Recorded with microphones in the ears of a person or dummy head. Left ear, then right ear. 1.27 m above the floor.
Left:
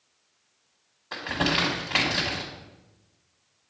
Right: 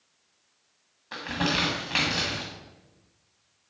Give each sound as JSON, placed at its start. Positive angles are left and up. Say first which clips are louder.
{"t": 1.1, "sound": "crumpling", "louder": "left 2 dB", "side_deg": 10, "distance_m": 1.3}